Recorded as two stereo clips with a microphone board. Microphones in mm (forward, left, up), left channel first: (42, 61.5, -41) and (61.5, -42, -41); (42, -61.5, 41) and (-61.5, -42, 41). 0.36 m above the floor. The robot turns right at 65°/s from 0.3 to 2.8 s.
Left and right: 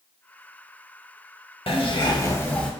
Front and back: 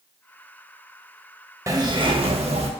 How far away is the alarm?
I don't hear an alarm.